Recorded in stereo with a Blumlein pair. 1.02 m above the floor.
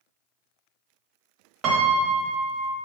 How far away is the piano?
About 0.5 m.